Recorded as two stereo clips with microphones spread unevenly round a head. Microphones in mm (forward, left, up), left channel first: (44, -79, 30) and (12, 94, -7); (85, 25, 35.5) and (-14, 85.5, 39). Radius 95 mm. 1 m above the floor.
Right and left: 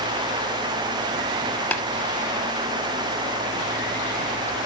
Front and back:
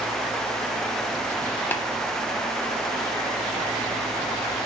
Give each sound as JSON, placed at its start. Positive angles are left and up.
{"t": 1.7, "sound": "tapping", "azimuth_deg": -90, "distance_m": 0.8}